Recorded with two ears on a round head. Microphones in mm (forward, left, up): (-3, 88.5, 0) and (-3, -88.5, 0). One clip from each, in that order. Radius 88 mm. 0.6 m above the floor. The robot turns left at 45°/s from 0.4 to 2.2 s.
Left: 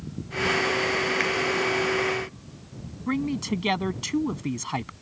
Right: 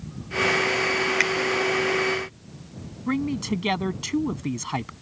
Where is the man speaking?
5° left (ahead or behind).